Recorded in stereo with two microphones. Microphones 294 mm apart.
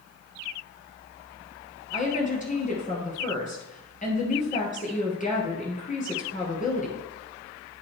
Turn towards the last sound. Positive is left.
turn(degrees=25)  # may be behind; listen again after turning